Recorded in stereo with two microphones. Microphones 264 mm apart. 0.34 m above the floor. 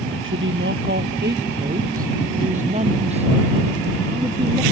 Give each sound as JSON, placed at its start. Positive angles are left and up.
{"t": 0.2, "sound": "a woman speaking", "side_deg": -50}